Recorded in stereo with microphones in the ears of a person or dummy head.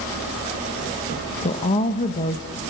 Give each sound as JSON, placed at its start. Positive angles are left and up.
{"t": 1.4, "sound": "a woman speaking", "side_deg": 30, "distance_m": 1.2}